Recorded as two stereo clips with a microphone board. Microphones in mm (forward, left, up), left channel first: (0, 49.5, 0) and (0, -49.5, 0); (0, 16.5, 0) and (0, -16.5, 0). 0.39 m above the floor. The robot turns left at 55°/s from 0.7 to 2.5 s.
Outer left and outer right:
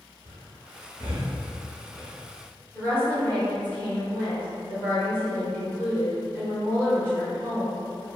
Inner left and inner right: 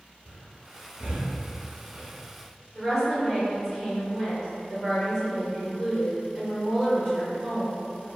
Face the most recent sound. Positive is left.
turn(degrees=20)  # may be behind; listen again after turning